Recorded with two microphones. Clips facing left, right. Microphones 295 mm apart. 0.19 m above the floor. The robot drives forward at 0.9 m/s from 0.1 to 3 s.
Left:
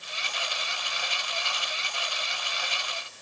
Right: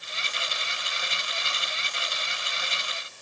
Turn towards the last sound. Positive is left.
No sound to turn to.